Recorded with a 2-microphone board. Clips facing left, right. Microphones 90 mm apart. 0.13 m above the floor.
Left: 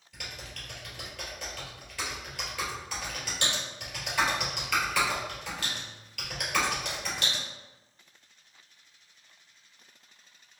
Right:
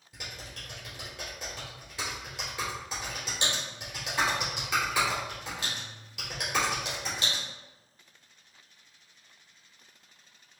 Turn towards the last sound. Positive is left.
turn(degrees=-25)  # may be behind; listen again after turning